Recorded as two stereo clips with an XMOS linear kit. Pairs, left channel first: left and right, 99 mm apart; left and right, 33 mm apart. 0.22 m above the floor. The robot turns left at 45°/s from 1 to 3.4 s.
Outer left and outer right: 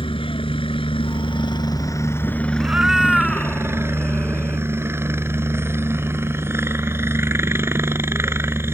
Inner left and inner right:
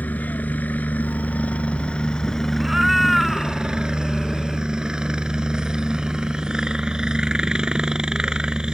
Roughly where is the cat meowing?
Behind.